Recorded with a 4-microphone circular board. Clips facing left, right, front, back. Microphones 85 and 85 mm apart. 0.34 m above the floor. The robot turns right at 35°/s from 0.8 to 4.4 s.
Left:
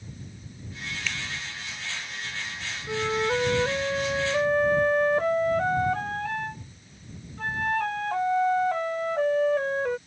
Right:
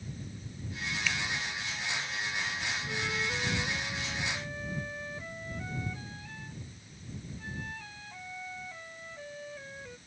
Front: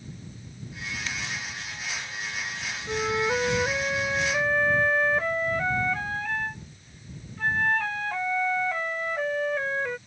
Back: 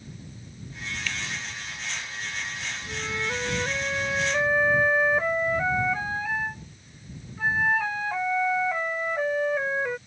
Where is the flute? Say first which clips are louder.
Left 13 dB, front 7 dB; 45° left; by 10.0 s 100° left.